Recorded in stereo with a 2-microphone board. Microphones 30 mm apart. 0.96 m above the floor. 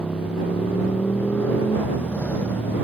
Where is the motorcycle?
50° left (ahead or behind); by 2.8 s 60° left (ahead or behind).